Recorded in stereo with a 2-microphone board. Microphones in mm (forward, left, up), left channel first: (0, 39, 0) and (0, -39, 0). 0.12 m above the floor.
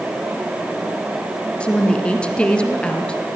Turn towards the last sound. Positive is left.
turn(degrees=15)  # may be behind; listen again after turning